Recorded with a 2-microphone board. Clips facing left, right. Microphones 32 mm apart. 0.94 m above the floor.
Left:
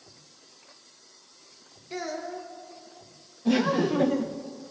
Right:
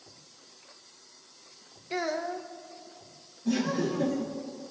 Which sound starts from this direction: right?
A child speaking, at 1.9 s.